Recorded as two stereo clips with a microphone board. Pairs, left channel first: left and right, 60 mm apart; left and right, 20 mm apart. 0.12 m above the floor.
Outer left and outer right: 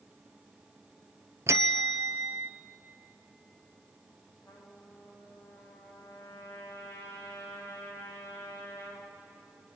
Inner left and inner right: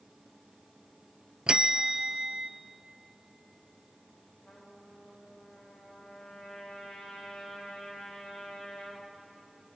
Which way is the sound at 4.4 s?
40° left (ahead or behind).